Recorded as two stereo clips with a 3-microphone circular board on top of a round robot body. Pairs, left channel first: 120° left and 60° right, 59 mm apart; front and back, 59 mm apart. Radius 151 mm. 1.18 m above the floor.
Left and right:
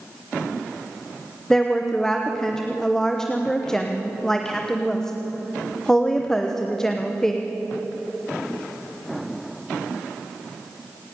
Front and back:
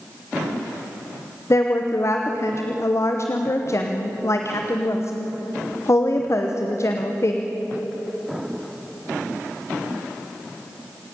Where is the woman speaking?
35° left, 1.2 m.